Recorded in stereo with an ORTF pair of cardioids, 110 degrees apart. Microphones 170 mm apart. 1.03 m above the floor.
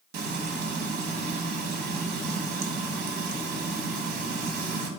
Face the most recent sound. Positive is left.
turn(degrees=-70)